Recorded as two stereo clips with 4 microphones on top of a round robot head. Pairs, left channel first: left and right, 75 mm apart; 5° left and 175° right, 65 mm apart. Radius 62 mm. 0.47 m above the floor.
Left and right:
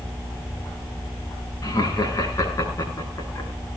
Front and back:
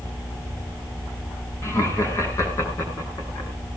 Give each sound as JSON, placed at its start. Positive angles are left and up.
{"t": 1.6, "sound": "laughter", "azimuth_deg": 45, "distance_m": 7.0}